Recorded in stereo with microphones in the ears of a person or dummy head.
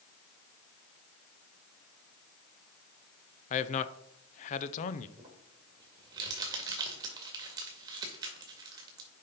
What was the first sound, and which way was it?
A man speaking, 45° left (ahead or behind).